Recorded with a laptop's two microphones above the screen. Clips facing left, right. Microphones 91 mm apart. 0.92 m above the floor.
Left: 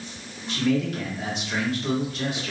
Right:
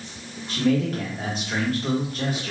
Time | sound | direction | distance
0.5 | a man speaking | 40° right (ahead or behind) | 1.1 m